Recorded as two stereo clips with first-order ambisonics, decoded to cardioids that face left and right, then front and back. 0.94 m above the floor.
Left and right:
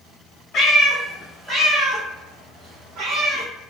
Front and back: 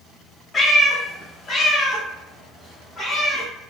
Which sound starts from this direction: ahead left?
A cat meowing, at 0.5 s.